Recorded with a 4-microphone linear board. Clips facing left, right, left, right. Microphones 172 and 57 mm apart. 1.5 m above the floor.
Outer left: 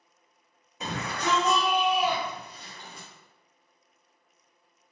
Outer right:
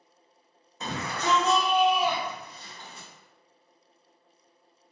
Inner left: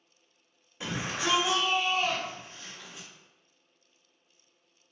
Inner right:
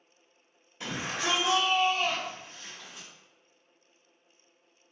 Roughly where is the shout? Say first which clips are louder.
Even, inner left 1 dB; centre.